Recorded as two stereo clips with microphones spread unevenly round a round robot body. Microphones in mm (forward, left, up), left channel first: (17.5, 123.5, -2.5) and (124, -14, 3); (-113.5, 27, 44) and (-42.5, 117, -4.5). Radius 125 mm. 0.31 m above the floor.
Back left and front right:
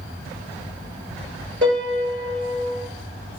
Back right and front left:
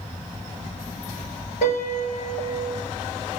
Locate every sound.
1.6 s a piano: 95° right, 1.9 m